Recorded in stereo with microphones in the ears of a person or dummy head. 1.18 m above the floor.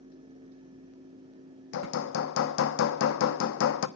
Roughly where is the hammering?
Left.